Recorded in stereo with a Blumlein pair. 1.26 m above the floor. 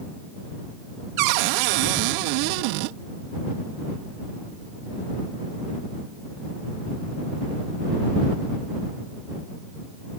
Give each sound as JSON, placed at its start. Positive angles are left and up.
{"t": 1.2, "sound": "a cupboard door", "azimuth_deg": -45}